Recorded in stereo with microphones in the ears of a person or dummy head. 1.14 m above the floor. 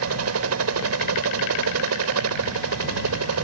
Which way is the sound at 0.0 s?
75° right (ahead or behind).